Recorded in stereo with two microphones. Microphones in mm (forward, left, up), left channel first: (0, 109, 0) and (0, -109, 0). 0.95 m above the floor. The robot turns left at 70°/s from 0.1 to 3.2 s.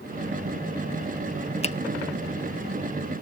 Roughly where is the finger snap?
Left.